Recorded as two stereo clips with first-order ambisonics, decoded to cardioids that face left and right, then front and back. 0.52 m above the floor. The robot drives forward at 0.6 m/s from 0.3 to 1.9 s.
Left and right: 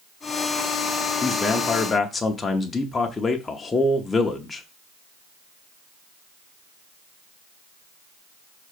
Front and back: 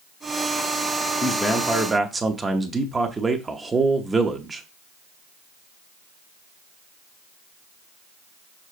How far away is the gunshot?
No gunshot in this recording.